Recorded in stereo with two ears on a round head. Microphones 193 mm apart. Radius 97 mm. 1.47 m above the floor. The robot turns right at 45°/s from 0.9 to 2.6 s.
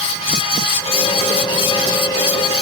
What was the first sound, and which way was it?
Only background noise.